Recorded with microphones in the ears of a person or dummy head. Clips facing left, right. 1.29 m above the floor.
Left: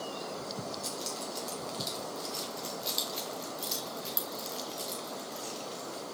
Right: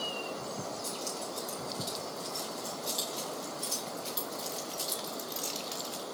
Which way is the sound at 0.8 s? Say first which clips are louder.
Even; 50° left (ahead or behind).